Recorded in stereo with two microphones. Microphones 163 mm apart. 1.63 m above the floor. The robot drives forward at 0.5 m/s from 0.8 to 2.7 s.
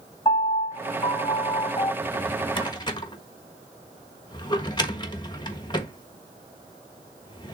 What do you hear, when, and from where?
0.2 s a piano: 30° left (ahead or behind), 1.8 m
2.0 s a drawer: 35° left (ahead or behind), 1.1 m; by 7.6 s 25° left (ahead or behind), 1.3 m